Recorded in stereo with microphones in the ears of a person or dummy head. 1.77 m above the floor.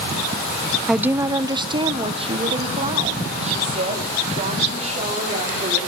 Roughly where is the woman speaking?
Centre.